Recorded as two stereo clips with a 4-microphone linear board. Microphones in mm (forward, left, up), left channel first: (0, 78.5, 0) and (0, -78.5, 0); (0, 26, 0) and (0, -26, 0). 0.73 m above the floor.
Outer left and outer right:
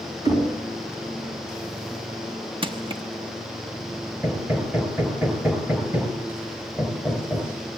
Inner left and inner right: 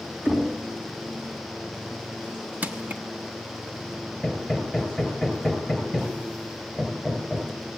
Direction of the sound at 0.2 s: 25° right (ahead or behind).